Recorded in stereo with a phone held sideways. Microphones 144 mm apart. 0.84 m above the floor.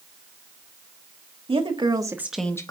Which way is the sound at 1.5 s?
40° right (ahead or behind).